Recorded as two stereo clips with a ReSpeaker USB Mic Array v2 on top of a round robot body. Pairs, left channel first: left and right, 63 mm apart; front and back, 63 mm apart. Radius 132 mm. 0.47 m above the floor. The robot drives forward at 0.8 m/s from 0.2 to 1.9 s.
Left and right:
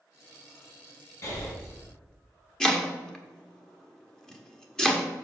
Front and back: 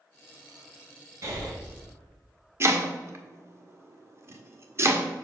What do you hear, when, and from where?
1.2 s breathing: 135° left, 3 m; by 1.5 s 140° left, 3 m
2.6 s chopping: 165° left, 1.3 m